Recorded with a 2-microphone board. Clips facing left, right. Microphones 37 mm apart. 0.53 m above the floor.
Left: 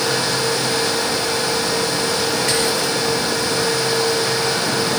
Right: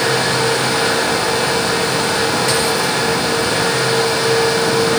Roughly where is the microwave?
No microwave in this recording.